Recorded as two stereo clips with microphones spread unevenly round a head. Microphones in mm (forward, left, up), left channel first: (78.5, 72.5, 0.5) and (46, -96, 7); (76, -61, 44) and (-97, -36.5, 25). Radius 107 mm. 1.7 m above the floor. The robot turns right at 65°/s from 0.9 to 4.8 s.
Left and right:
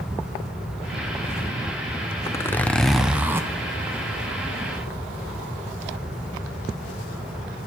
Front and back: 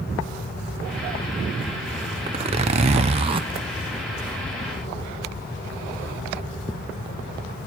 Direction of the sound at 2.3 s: 130° left.